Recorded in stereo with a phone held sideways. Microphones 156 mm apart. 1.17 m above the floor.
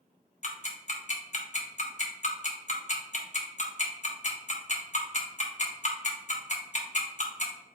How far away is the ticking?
About 0.8 m.